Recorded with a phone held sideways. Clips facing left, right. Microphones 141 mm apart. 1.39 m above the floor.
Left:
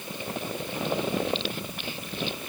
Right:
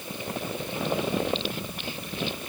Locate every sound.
Only background noise.